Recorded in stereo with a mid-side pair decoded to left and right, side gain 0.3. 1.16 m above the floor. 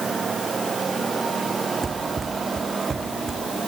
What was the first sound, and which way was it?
Running footsteps, 40° right.